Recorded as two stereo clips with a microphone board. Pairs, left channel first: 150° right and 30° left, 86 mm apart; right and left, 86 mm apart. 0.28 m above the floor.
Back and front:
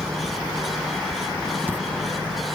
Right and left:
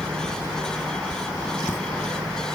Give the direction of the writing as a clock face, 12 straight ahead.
1 o'clock.